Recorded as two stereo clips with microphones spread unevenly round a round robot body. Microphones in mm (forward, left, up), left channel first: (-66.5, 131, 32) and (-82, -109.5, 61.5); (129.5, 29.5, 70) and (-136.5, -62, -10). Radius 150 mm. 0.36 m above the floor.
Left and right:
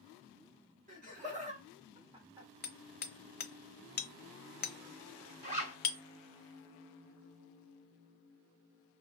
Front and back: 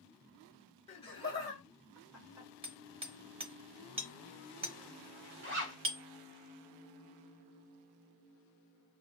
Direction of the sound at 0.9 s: 60° right.